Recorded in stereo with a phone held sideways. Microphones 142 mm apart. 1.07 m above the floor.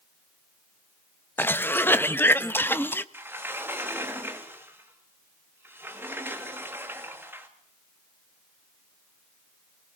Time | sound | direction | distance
1.4 | a cough | 15° left (ahead or behind) | 1.0 m
3.1 | a sliding door | 15° right (ahead or behind) | 2 m